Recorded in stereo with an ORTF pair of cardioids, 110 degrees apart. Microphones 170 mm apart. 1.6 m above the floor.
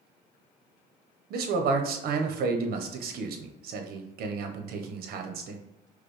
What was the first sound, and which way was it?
A man speaking, 65° right.